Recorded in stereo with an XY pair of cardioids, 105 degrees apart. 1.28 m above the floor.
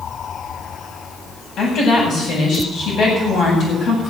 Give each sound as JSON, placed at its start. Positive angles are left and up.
{"t": 1.6, "sound": "a woman speaking", "azimuth_deg": 65, "distance_m": 8.0}